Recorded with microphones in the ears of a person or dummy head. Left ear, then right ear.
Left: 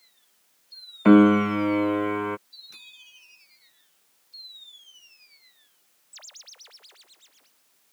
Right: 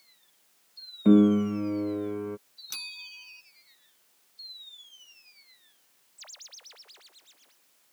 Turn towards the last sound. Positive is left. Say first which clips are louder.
# right 8 dB
turn(degrees=-55)  # may be behind; listen again after turning